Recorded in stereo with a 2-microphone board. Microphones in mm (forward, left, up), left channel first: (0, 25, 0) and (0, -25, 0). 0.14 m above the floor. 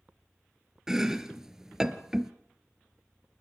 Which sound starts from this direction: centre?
Chopping, at 0.9 s.